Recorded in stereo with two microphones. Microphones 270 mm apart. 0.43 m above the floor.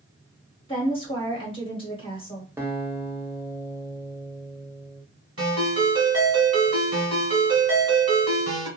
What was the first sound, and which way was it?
A woman speaking, 20° left (ahead or behind).